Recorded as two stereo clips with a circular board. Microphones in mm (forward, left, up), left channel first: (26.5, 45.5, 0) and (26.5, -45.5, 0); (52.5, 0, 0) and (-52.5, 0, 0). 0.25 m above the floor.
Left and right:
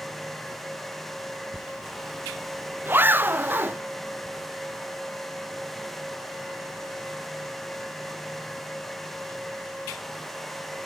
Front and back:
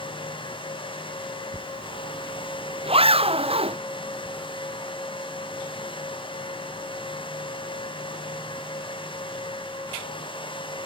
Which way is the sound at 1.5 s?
155° right.